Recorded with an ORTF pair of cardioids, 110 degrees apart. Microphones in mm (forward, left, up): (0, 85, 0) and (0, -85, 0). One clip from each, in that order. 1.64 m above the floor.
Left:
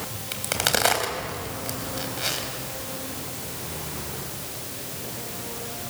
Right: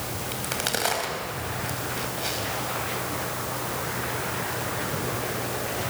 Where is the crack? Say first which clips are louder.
Left 5 dB; 30° left, 4 m.